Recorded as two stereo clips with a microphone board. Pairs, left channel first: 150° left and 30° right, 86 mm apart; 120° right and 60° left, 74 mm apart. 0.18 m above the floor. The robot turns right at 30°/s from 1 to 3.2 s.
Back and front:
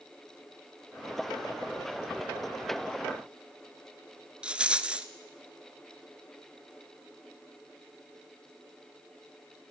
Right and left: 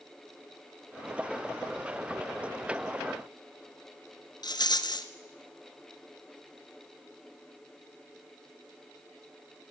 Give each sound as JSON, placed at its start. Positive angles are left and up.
{"t": 4.4, "sound": "a rattle", "azimuth_deg": -105, "distance_m": 0.9}